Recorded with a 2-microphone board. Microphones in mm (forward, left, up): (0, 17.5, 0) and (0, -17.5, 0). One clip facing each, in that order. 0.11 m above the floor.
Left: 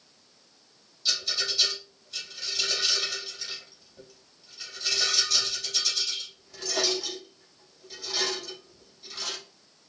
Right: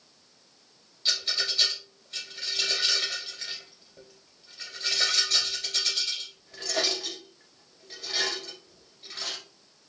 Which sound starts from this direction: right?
A rattle, at 1.1 s.